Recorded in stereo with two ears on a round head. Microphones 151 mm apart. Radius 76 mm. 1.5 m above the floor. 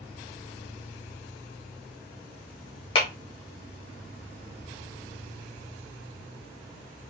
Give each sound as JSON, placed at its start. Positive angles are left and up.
{"t": 3.0, "sound": "a clap", "side_deg": 35, "distance_m": 1.2}